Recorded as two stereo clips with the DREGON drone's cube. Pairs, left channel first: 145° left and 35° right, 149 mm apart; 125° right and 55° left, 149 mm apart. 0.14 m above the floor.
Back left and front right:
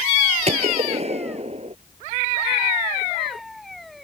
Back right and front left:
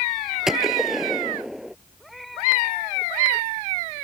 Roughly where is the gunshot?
Ahead right.